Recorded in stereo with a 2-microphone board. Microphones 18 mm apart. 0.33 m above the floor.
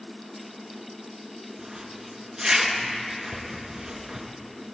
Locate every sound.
1.6 s a zipper: 40° right (ahead or behind), 2.5 m